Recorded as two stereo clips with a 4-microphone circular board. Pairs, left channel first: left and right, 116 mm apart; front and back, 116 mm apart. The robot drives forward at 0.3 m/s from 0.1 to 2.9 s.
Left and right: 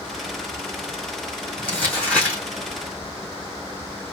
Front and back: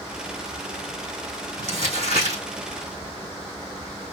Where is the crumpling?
165° left, 3.5 m; by 2.4 s 170° left, 3.5 m.